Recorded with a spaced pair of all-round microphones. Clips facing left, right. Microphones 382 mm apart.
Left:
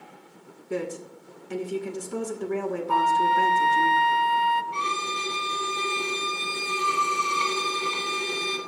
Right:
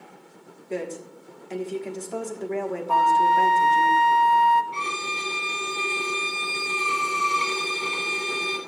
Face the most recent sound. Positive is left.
turn(degrees=25)  # may be behind; listen again after turning